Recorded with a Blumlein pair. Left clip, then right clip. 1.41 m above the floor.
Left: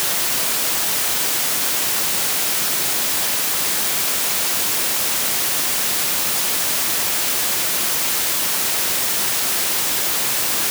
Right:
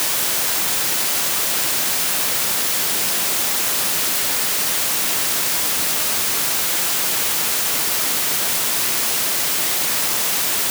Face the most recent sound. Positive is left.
No sound to turn to.